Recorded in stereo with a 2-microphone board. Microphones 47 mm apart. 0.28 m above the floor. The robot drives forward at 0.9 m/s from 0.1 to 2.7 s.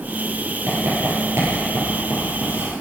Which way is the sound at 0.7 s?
80° right.